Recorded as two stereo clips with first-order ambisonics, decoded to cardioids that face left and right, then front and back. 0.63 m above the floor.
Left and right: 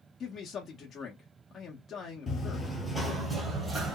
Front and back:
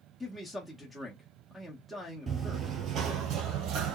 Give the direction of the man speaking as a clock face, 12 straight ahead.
9 o'clock.